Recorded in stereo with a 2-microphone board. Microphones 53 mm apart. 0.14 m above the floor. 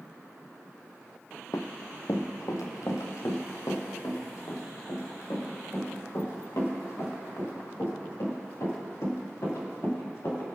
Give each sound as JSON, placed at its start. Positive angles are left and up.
{"t": 1.5, "sound": "running footsteps", "side_deg": 75, "distance_m": 0.9}